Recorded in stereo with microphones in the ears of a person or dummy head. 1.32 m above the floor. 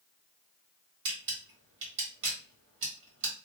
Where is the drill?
I don't hear a drill.